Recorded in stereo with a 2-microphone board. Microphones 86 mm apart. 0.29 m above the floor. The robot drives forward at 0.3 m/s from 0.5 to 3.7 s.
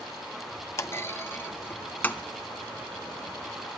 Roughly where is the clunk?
Left.